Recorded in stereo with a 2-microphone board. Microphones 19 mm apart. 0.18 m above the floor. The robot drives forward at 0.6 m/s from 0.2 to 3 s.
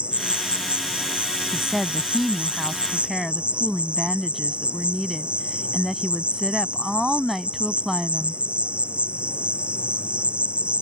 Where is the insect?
70° right (ahead or behind); by 10.8 s 75° right (ahead or behind).